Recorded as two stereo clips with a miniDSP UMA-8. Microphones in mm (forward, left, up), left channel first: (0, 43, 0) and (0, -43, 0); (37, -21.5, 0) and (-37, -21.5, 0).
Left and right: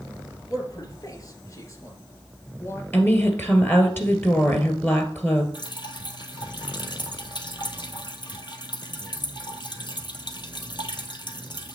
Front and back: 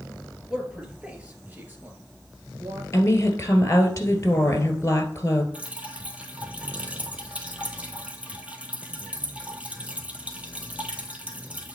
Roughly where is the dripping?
Left.